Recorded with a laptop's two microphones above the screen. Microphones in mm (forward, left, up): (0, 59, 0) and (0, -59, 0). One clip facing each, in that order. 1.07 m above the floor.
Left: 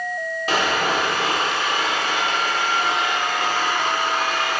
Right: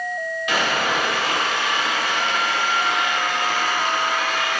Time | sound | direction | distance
0.5 | sawing | 35° left (ahead or behind) | 2 m